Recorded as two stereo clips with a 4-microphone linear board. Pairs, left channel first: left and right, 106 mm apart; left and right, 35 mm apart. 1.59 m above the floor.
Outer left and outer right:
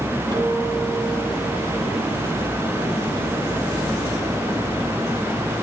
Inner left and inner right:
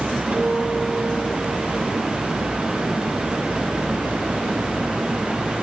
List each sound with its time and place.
0.3 s a guitar: 45° right (ahead or behind), 9 m